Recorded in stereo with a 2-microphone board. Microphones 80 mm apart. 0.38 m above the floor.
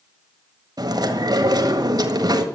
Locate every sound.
0.8 s chewing: 55° right (ahead or behind), 1.6 m